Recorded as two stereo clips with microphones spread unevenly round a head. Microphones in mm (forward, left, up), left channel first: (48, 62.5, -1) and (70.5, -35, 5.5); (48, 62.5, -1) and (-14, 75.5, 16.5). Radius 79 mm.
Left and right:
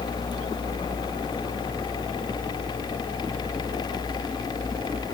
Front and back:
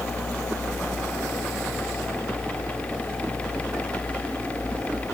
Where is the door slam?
No door slam in this recording.